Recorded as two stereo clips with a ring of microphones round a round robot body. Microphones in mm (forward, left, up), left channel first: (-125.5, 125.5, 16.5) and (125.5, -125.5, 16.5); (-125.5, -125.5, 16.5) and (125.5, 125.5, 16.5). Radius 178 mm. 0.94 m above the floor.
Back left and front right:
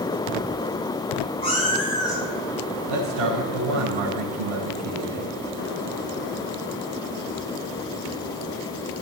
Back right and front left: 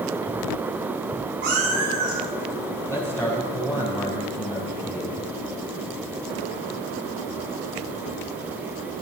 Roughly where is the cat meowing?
Ahead left.